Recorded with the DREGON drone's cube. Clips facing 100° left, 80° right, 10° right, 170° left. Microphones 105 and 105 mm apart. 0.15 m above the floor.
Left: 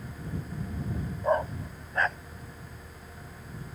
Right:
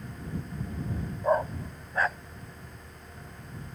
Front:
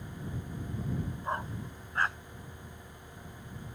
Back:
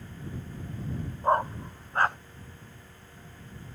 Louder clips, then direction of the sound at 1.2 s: Right 1 dB, back 15 dB; 165° right.